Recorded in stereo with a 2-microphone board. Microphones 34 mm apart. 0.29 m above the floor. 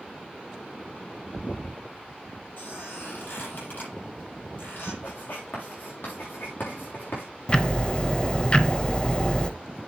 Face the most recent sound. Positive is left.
turn(degrees=25)  # may be behind; listen again after turning